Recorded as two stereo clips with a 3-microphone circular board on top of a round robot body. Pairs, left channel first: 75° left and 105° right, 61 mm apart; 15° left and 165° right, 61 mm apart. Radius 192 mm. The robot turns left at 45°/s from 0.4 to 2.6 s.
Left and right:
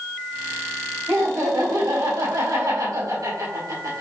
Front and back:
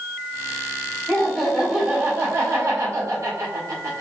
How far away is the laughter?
About 4 m.